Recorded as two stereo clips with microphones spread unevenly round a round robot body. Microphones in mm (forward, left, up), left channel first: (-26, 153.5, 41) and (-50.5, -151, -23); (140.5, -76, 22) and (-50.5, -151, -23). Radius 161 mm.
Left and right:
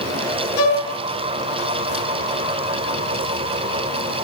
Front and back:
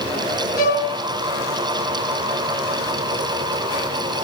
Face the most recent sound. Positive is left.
turn(degrees=130)